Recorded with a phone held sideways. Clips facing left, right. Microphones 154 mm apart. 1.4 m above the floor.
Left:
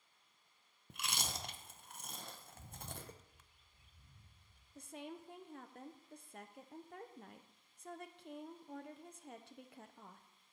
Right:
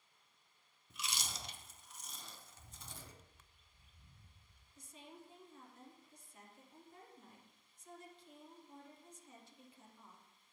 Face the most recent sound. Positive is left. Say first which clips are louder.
# left 8 dB
turn(degrees=65)  # may be behind; listen again after turning